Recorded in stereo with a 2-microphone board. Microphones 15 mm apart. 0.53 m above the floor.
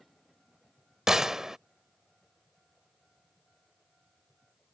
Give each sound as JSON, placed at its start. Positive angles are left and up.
{"t": 1.1, "sound": "a gunshot", "side_deg": -40}